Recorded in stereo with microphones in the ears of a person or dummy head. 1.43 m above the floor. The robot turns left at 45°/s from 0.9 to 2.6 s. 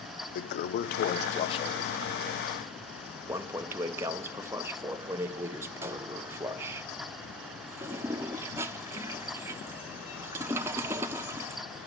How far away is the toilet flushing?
About 0.5 m.